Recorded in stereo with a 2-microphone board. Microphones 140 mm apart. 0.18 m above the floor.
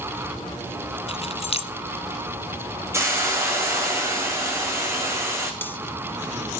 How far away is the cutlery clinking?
About 1.1 m.